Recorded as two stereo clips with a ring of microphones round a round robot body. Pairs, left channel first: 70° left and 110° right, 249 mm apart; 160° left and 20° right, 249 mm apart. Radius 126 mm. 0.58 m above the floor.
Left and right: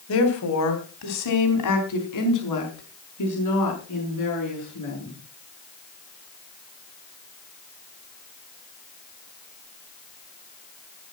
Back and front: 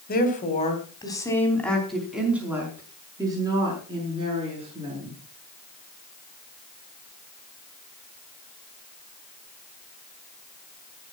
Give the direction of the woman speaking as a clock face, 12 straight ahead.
9 o'clock.